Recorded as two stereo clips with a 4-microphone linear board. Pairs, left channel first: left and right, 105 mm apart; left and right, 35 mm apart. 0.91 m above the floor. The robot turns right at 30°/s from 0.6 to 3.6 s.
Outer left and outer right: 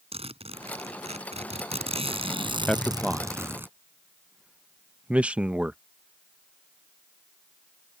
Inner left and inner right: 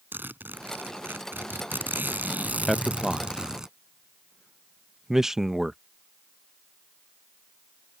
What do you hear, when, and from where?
0.1 s a zipper: 110° right; by 3.7 s 20° right
2.7 s a man speaking: 10° left (ahead or behind); by 5.8 s 10° right (ahead or behind)